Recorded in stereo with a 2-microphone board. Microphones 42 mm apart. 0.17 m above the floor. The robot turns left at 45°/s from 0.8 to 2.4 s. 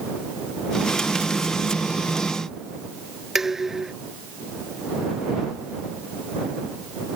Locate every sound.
3.4 s dishes clattering: 10° right (ahead or behind)